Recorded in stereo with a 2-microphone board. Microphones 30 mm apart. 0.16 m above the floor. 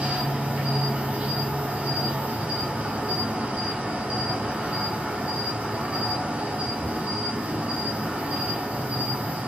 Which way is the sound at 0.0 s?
50° right (ahead or behind).